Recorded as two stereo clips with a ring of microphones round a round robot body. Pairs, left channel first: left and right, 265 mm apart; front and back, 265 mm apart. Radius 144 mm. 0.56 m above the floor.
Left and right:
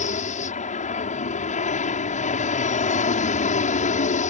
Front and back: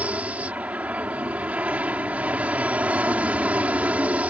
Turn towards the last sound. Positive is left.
turn(degrees=100)